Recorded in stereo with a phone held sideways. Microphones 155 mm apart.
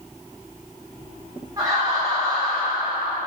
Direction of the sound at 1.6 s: 25° right (ahead or behind).